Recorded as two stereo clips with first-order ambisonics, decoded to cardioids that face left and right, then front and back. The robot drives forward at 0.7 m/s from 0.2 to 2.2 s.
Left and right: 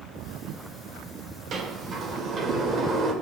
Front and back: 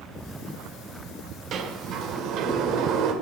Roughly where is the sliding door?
Behind right.